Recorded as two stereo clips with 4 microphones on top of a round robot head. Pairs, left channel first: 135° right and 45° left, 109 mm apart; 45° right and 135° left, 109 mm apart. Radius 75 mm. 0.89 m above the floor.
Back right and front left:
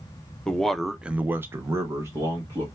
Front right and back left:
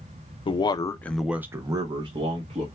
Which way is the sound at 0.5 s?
60° right.